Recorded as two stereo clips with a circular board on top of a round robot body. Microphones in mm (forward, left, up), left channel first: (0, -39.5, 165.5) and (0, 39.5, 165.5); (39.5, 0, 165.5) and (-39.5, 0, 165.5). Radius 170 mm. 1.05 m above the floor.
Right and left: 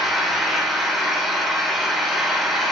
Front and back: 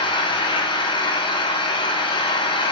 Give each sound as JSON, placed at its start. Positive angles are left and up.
{"t": 0.0, "sound": "an engine running", "azimuth_deg": 0, "distance_m": 3.0}